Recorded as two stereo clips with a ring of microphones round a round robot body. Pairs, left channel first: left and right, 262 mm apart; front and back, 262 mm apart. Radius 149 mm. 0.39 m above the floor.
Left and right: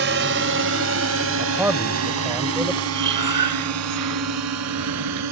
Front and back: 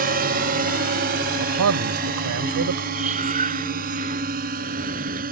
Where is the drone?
130° right; by 5.3 s 120° right.